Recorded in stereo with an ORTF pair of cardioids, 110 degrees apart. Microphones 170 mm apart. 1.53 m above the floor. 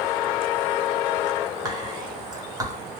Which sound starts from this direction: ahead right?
Whispering, at 1.6 s.